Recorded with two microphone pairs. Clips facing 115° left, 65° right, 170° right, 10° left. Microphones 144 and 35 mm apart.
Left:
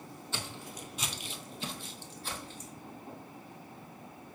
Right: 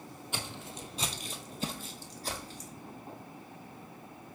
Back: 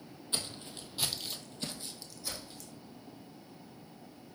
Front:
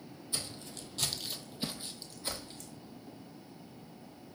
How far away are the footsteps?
About 0.7 m.